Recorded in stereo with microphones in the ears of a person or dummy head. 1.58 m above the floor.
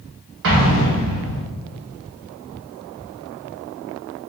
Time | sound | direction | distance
0.4 | an explosion | 60° right (ahead or behind) | 1.4 m